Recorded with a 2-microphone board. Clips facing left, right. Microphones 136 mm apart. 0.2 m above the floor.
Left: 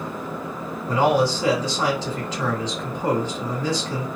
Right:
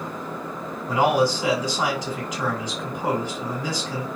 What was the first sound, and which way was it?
A man speaking, 15° right (ahead or behind).